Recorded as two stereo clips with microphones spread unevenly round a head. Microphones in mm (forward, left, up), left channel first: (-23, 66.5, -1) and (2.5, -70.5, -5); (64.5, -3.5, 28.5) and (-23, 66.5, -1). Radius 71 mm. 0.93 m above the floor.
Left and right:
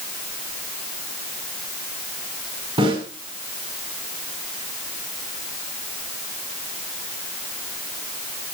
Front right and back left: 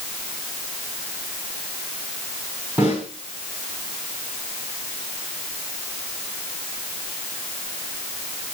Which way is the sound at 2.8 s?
140° right.